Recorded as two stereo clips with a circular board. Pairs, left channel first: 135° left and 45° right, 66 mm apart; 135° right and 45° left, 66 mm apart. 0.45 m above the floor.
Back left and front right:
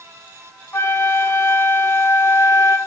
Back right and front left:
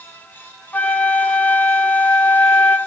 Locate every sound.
0.7 s a flute: 165° left, 0.6 m